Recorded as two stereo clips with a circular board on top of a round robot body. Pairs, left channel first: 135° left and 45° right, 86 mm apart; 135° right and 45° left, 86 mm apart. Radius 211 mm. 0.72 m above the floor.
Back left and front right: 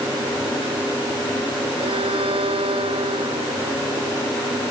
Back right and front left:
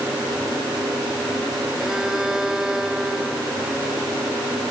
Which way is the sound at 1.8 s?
40° right.